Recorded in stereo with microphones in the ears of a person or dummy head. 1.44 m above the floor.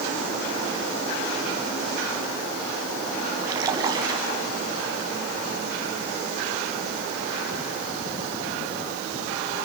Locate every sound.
3.4 s a splash: 25° right (ahead or behind), 5 m